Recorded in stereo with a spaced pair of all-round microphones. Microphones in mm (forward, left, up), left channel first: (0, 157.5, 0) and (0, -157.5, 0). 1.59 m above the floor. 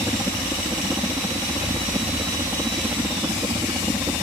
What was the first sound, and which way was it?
A helicopter, 5° right (ahead or behind).